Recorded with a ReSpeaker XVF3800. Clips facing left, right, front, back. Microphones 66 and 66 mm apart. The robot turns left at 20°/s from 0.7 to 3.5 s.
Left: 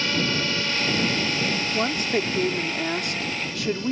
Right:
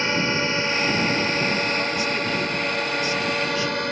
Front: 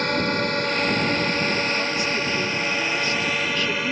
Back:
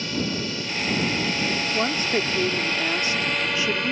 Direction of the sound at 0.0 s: 30° right.